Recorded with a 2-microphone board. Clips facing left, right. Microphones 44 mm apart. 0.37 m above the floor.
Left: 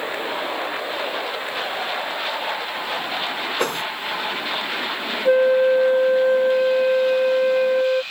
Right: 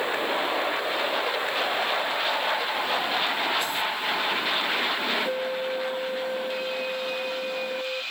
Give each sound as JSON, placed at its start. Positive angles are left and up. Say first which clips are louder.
{"t": 3.6, "sound": "a whoosh", "louder": "left 4 dB", "side_deg": 55}
{"t": 5.2, "sound": "a flute", "louder": "left 13 dB", "side_deg": 50}